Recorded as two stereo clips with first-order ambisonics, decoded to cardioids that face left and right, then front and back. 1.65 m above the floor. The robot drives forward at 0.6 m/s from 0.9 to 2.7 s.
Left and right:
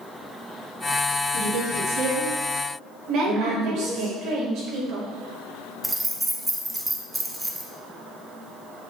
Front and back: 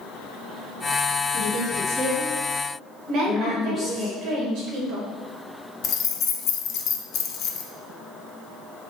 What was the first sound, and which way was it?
A woman speaking, 80° right.